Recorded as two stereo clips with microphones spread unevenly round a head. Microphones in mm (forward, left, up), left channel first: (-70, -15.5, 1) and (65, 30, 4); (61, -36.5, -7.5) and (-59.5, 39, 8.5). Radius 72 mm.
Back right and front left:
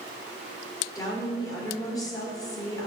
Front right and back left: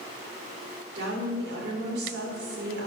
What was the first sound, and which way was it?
A woman speaking, 135° left.